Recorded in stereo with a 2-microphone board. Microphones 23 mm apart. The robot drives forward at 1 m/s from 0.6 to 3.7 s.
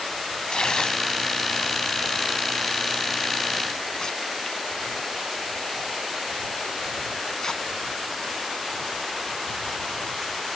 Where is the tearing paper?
40° left (ahead or behind), 1.6 m; by 9.3 s 30° left (ahead or behind), 2 m.